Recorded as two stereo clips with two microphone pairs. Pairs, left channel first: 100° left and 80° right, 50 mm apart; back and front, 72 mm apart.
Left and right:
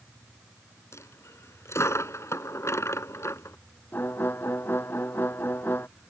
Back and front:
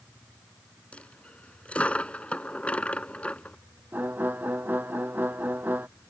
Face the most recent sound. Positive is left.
turn(degrees=65)